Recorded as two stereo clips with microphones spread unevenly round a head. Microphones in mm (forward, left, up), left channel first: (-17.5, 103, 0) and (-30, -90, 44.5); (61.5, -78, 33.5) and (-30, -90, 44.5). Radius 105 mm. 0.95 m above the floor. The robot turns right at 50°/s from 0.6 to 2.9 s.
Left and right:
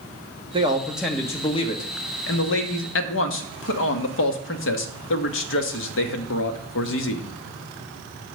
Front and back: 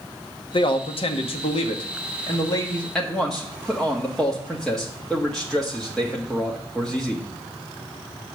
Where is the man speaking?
25° right, 1.1 m; by 7.3 s 90° left, 1.1 m.